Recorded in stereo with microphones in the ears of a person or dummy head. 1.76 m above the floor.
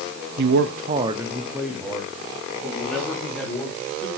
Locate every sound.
0.4 s a man speaking: 60° right (ahead or behind), 0.7 m; by 4.1 s 10° left (ahead or behind), 4.5 m